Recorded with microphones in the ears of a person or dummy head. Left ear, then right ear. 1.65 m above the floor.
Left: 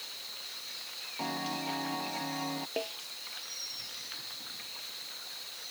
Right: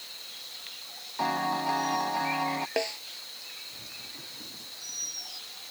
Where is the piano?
40° right (ahead or behind).